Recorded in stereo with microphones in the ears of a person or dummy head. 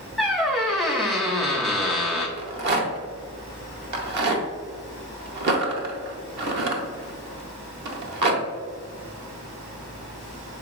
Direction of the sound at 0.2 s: Centre (ahead or behind).